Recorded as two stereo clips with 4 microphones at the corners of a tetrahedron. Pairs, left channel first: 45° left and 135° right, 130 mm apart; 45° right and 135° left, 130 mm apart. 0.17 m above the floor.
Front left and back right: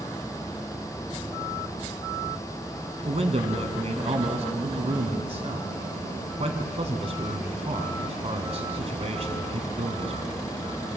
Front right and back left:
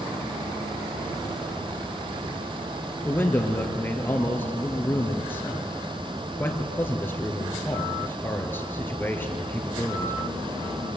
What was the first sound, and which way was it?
A man speaking, 115° right.